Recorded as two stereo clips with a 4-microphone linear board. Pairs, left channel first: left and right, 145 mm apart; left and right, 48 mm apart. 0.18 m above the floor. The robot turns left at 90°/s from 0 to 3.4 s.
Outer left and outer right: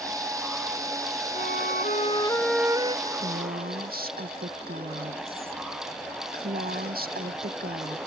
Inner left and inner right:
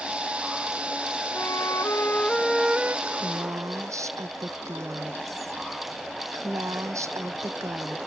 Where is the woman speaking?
55° right; by 8.0 s 90° right.